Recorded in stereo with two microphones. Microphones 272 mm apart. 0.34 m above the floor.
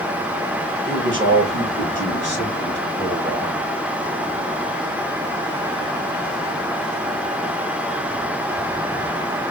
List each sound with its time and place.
0.9 s a man speaking: 45° right (ahead or behind), 2 m; by 3.6 s 40° right (ahead or behind), 4 m